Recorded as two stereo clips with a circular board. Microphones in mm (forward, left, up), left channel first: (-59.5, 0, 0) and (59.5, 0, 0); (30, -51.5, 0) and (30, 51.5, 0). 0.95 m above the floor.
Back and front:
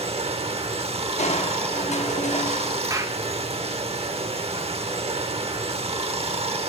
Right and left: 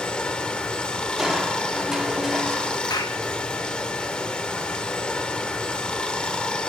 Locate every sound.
0.0 s running water: 10° right, 0.9 m
1.2 s crushing: 175° left, 0.8 m
2.9 s a clap: 55° right, 1.0 m